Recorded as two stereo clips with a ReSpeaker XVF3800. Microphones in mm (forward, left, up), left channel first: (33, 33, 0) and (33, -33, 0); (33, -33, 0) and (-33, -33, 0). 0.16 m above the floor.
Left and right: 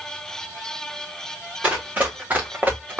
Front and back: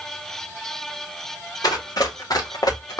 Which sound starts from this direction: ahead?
Running footsteps, at 1.6 s.